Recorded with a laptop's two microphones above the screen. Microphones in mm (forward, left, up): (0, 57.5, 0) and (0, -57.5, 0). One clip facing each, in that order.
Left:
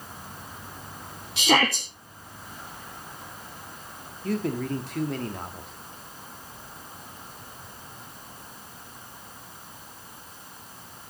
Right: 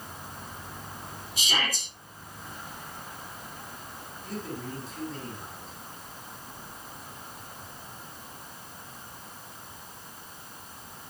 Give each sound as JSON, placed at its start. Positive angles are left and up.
{"t": 1.4, "sound": "a shout", "side_deg": 70, "distance_m": 1.6}
{"t": 4.2, "sound": "a man speaking", "side_deg": 70, "distance_m": 1.6}